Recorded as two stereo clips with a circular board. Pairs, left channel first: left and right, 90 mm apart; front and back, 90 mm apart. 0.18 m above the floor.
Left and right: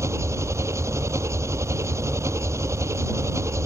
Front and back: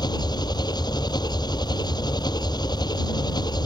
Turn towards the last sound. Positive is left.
turn(degrees=-35)